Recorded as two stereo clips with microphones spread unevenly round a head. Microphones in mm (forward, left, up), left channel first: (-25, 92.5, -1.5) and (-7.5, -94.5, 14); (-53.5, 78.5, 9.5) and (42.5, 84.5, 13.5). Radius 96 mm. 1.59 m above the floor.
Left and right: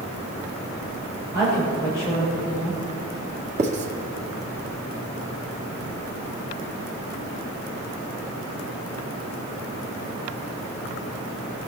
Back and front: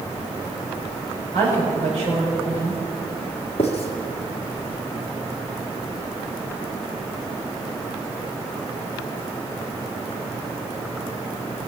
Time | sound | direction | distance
1.3 | a woman speaking | 10° right | 7 m
3.6 | writing | 130° right | 1.8 m